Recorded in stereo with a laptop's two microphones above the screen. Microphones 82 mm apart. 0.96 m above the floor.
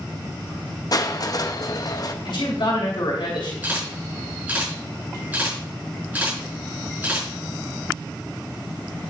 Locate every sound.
0.9 s crushing: 50° left (ahead or behind), 0.8 m
2.2 s a man speaking: 70° left (ahead or behind), 2.5 m
3.6 s a camera shutter: 20° right (ahead or behind), 5.5 m